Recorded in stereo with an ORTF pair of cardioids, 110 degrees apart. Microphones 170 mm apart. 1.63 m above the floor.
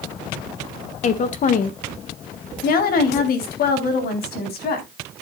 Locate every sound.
1.0 s a woman speaking: 45° left, 1.8 m; by 4.9 s 65° left, 5 m